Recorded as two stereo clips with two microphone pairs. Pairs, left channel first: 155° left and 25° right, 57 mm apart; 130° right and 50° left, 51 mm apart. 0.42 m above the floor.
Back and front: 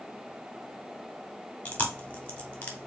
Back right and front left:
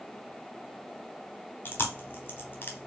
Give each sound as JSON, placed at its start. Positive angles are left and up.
{"t": 1.6, "sound": "chewing", "azimuth_deg": -150, "distance_m": 0.9}